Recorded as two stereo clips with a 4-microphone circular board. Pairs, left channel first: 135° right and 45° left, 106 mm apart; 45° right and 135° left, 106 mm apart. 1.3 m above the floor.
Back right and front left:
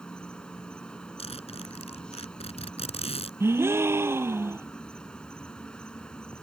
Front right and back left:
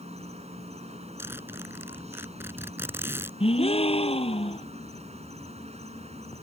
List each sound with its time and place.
0.0 s an insect: 145° left
1.2 s a zipper: 155° right
3.4 s a gasp: 20° right